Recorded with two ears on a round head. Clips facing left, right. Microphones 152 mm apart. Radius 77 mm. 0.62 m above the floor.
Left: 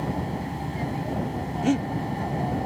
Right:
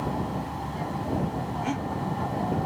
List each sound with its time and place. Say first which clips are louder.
0.0 s an aircraft: left 1 dB; 20° left (ahead or behind)
1.6 s breathing: left 10 dB; 40° left (ahead or behind)